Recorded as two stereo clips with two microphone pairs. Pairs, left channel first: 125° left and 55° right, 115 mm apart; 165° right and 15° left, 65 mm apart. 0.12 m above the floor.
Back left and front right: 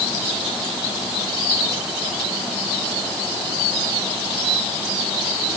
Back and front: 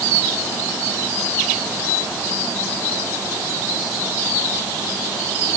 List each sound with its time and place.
Only background noise.